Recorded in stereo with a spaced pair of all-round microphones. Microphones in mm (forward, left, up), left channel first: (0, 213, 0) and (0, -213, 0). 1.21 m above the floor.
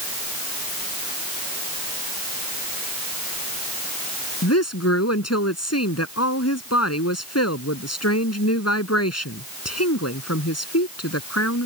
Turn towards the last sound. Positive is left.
turn(degrees=35)  # may be behind; listen again after turning